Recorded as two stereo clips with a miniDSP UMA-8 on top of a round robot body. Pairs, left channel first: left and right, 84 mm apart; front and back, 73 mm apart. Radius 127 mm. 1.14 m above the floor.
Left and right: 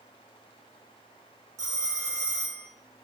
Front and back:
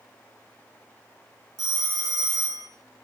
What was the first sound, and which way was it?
A phone ringing, 145° right.